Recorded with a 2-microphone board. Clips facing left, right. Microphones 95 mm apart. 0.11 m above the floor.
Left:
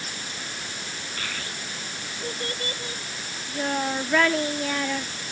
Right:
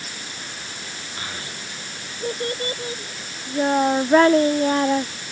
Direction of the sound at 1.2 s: 25° right (ahead or behind).